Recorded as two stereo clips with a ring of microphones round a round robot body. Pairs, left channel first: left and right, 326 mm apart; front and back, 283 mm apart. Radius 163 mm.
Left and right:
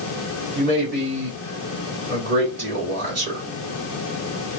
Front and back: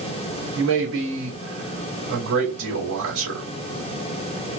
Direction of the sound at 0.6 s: 130° right.